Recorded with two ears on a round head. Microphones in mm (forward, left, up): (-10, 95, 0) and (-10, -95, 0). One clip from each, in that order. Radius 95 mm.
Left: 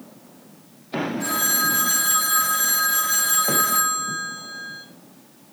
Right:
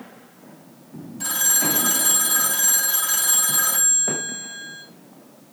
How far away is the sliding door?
No sliding door in this recording.